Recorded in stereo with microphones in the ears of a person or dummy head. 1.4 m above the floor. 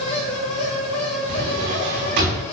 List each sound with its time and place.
0.0 s a fan: 25° left (ahead or behind), 1.4 m
1.3 s a drawer: 60° right (ahead or behind), 5 m